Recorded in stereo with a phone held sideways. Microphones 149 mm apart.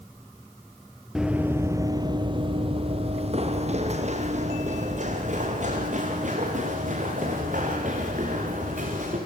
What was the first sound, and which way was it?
Running footsteps, 5° right (ahead or behind).